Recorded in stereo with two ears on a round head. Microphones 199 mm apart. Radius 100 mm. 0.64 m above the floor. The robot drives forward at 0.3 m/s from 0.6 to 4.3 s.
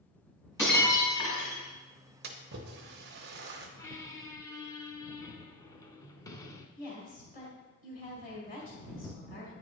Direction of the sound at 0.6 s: 15° left (ahead or behind).